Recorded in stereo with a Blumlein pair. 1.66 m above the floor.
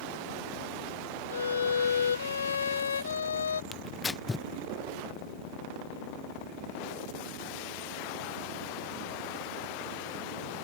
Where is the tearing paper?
10° left.